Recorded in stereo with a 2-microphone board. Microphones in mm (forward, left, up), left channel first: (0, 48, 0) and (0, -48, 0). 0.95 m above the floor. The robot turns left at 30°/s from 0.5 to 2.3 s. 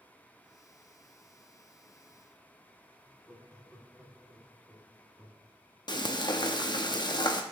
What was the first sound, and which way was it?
Laughter, 15° left (ahead or behind).